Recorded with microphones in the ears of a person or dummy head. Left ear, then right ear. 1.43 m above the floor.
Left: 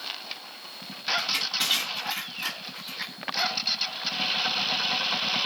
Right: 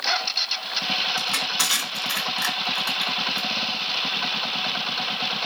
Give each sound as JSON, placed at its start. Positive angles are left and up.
{"t": 1.2, "sound": "crushing", "side_deg": -65, "distance_m": 1.7}